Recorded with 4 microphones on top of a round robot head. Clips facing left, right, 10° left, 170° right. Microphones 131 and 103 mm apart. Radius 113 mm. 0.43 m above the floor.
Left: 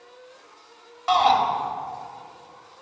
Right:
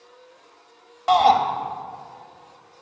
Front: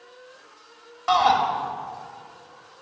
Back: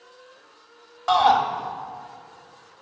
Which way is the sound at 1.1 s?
90° right.